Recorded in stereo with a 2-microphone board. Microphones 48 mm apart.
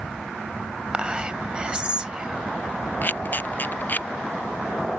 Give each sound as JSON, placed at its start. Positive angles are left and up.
{"t": 0.9, "sound": "whispering", "side_deg": -20}
{"t": 3.0, "sound": "a camera shutter", "side_deg": 40}